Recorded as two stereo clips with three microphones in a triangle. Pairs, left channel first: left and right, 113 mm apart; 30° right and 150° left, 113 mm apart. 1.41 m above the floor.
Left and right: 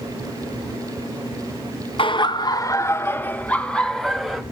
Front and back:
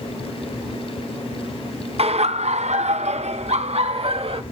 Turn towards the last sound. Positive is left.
turn(degrees=180)